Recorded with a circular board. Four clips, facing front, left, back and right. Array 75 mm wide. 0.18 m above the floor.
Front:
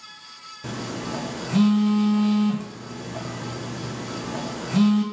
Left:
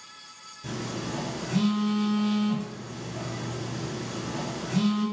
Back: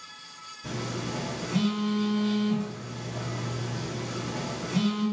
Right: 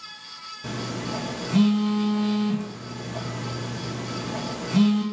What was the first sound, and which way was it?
A phone buzzing, 20° right.